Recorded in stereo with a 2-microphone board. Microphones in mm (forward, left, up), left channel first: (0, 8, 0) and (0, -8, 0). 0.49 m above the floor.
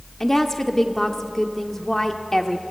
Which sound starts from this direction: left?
A woman speaking, at 0.2 s.